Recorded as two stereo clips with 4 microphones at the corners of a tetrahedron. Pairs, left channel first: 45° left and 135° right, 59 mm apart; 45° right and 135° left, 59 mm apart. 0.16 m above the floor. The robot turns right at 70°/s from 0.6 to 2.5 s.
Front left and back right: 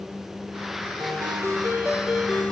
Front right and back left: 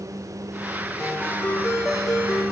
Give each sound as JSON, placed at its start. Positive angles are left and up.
{"t": 1.0, "sound": "a ringtone", "azimuth_deg": -135, "distance_m": 3.0}